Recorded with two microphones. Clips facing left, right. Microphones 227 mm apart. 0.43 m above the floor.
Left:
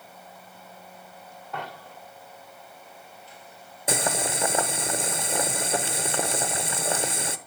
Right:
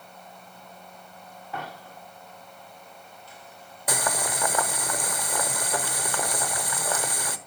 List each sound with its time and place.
1.5 s a dropped coin: 5° right (ahead or behind), 7 m
3.9 s boiling: 25° left (ahead or behind), 0.6 m